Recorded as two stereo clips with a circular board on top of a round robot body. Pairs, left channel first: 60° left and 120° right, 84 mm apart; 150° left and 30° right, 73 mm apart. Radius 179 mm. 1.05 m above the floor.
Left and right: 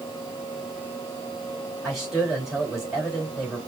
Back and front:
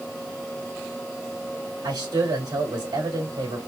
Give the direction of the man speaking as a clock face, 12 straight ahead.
1 o'clock.